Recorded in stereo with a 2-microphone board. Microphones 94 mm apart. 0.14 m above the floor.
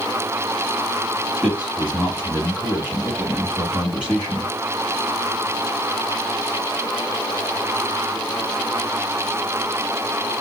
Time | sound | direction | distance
1.4 | a man speaking | 15° right (ahead or behind) | 1.7 m